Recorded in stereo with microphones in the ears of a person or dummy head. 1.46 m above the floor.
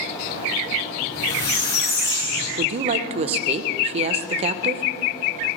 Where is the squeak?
25° left (ahead or behind), 3 m.